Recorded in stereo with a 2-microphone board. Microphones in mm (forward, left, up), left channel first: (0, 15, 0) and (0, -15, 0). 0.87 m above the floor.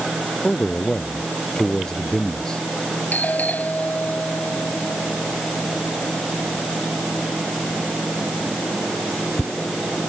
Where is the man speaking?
25° left (ahead or behind).